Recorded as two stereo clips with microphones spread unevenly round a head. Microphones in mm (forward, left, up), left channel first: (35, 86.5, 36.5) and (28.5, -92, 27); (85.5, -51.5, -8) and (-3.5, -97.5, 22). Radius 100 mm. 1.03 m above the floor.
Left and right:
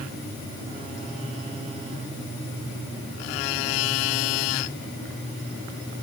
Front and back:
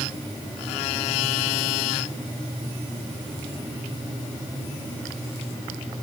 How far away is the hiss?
No hiss in this recording.